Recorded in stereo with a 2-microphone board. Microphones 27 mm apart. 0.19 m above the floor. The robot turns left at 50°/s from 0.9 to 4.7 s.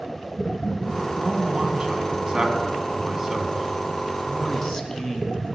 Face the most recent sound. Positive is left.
turn(degrees=135)